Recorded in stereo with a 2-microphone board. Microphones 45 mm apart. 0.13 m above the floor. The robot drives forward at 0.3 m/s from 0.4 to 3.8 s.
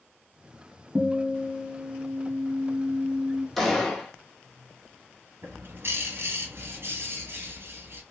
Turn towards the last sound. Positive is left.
turn(degrees=-65)  # may be behind; listen again after turning